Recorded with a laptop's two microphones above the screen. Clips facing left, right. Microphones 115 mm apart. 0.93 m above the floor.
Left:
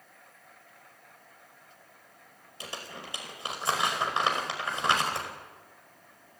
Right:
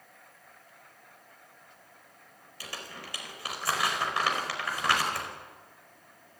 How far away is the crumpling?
About 4.5 m.